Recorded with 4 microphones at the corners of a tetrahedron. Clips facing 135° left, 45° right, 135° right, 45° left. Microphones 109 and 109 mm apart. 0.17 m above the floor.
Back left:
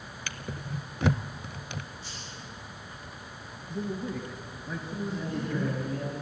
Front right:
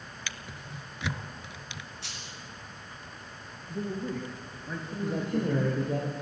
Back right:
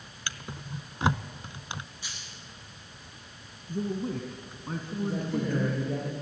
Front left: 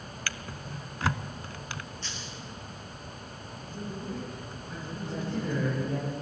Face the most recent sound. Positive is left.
turn(degrees=-60)